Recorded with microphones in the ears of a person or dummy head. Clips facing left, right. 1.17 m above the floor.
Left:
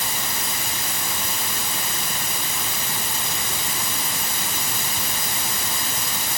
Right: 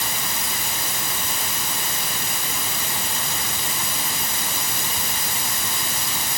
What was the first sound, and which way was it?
Only background noise.